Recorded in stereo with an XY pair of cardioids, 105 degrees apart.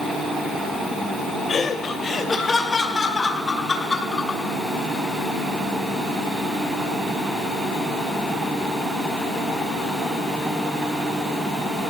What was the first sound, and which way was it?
Laughter, 45° left.